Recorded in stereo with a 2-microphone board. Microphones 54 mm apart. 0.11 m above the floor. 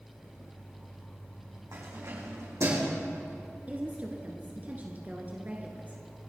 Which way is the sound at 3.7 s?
35° right (ahead or behind).